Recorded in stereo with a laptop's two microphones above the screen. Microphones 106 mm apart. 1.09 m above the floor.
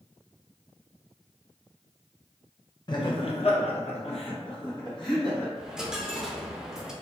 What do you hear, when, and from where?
2.9 s laughter: 45° left (ahead or behind), 0.7 m; by 5.5 s 35° left (ahead or behind), 1.3 m
5.5 s a dropped coin: 5° right (ahead or behind), 0.5 m